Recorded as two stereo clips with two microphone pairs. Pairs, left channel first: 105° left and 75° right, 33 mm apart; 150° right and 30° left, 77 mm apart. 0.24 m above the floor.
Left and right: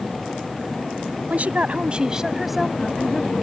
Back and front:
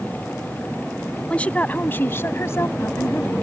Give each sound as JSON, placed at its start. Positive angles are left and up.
{"t": 1.3, "sound": "a woman speaking", "azimuth_deg": -75}